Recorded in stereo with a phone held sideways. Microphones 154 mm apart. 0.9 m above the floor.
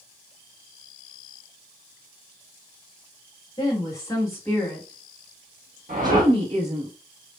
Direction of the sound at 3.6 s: 25° left (ahead or behind).